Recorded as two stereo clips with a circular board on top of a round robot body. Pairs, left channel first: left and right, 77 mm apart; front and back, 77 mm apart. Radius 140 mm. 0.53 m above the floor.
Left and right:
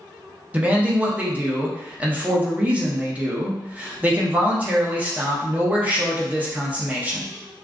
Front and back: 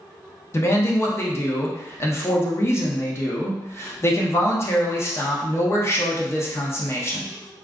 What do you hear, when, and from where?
0.5 s a man speaking: 30° right, 0.8 m